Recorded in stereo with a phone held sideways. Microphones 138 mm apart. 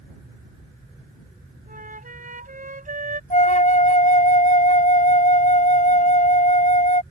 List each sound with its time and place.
1.7 s a flute: 75° right (ahead or behind)
3.3 s a flute: 70° left (ahead or behind)